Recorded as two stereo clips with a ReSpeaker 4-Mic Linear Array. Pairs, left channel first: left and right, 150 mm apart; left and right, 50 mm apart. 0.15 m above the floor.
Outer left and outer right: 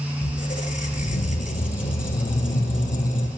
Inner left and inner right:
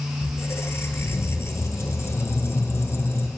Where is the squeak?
60° left (ahead or behind), 0.8 m.